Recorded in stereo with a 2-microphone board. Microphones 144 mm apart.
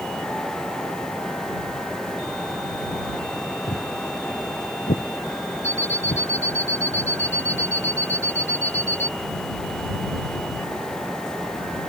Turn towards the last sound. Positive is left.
turn(degrees=10)  # may be behind; listen again after turning